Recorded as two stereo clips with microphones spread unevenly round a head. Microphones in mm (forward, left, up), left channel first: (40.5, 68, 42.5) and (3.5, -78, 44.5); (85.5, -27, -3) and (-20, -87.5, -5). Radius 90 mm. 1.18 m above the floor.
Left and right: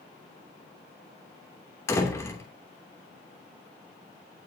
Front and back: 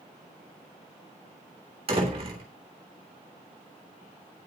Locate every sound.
1.9 s a door slam: 150° left, 3 m